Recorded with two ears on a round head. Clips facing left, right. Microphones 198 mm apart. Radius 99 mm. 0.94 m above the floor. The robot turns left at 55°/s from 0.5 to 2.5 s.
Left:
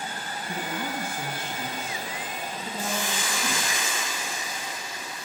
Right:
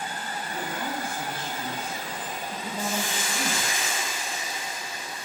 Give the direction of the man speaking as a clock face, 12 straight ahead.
9 o'clock.